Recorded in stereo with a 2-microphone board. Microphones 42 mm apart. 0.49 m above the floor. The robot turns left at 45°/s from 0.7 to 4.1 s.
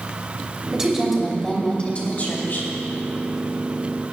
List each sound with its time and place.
0.7 s a woman speaking: 165° right, 2.5 m; by 2.7 s 110° left, 2.5 m